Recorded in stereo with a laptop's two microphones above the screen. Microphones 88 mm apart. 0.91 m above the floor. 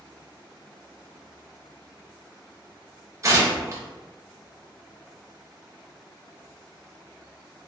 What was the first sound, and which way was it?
Tearing paper, 40° right (ahead or behind).